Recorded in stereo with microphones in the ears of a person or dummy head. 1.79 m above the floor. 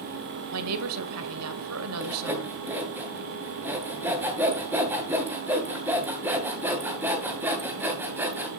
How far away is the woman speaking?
About 1.5 m.